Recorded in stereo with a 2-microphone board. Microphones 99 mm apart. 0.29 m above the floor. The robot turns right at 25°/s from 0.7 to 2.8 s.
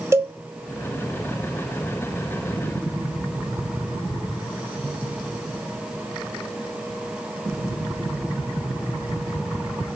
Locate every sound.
0.1 s a cowbell: 25° right (ahead or behind), 1.2 m